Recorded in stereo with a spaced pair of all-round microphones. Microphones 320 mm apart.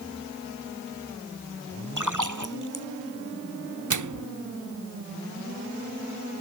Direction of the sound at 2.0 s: 70° right (ahead or behind).